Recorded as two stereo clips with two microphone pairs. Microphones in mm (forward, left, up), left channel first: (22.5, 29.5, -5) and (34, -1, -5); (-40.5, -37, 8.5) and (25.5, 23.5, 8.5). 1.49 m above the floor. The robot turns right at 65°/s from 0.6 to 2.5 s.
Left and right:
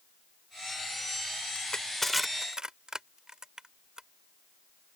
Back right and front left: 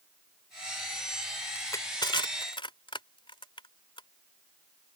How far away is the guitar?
No guitar in this recording.